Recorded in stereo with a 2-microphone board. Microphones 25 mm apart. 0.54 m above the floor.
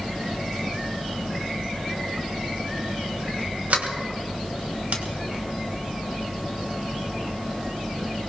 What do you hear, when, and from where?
3.7 s a sliding door: 75° right (ahead or behind), 2.0 m